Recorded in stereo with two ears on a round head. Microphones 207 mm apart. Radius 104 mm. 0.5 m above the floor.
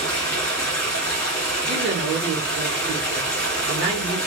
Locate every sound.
0.0 s running water: 5° left (ahead or behind), 1.9 m
1.7 s a woman speaking: 45° right (ahead or behind), 1.2 m